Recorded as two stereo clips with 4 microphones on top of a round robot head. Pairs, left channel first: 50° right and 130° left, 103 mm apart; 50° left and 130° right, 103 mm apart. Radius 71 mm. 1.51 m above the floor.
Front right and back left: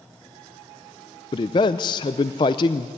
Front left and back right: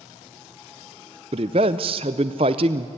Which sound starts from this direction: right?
A man speaking, at 1.3 s.